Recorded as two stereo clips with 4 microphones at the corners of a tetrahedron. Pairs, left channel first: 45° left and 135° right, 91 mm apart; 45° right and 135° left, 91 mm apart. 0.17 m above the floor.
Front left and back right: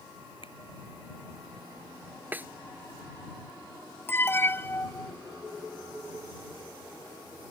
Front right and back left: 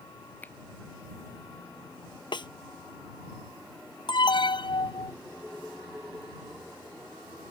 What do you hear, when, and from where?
0.4 s a finger snap: 25° left
2.3 s a snare drum: 65° right
4.1 s an alarm: 20° right